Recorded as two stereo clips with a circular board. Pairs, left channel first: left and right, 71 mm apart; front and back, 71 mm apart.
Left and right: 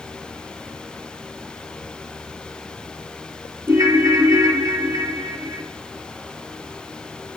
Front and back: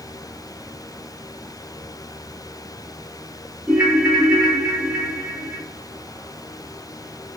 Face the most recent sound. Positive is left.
turn(degrees=-110)